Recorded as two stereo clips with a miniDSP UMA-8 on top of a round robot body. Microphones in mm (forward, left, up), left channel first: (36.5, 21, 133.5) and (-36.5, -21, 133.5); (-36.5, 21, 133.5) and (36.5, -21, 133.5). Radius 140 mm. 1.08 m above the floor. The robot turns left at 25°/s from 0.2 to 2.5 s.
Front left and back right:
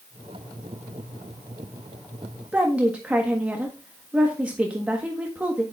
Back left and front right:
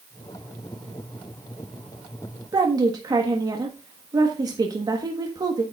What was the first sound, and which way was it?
A woman speaking, 75° right.